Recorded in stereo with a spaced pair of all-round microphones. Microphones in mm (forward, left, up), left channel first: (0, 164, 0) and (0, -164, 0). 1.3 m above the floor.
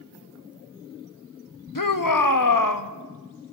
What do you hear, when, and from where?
1.8 s a shout: 75° left (ahead or behind), 1.7 m